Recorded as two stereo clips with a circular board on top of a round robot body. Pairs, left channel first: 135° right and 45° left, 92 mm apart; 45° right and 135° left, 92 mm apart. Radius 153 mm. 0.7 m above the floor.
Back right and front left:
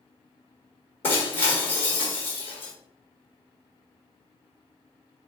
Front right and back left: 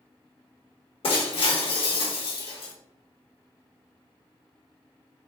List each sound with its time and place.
1.0 s breaking glass: 70° right, 1.5 m